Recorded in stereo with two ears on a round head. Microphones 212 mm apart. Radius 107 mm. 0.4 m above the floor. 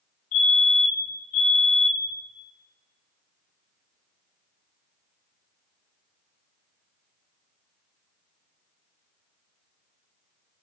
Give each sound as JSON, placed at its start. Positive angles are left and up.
{"t": 0.3, "sound": "a fire alarm", "side_deg": 65, "distance_m": 5.0}